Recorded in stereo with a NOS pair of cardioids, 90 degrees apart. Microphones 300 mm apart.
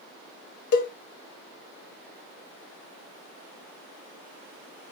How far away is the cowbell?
About 1.1 m.